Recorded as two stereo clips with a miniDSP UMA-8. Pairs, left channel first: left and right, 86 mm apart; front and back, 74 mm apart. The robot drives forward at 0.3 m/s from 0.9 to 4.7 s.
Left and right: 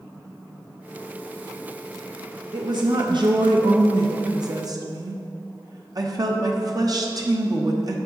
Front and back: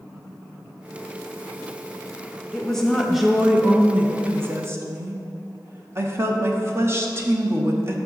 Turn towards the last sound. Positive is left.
turn(degrees=-125)